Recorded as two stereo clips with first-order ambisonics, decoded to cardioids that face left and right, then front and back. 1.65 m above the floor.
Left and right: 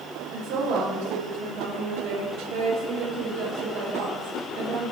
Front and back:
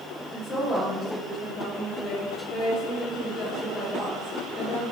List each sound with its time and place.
0.3 s a woman speaking: 65° right, 1.7 m